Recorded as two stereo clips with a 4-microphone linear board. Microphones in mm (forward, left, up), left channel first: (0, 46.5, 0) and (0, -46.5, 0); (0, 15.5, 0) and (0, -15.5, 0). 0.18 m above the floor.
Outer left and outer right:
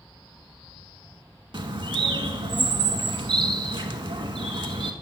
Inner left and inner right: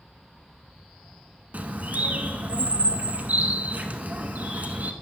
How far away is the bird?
About 0.6 m.